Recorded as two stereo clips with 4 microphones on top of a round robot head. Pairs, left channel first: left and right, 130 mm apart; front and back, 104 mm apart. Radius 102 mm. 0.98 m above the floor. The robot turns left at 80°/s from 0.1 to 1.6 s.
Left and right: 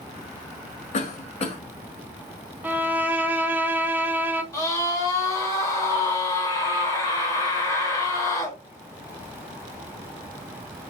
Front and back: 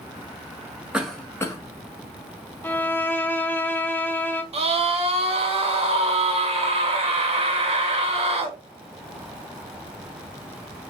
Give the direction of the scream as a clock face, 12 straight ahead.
7 o'clock.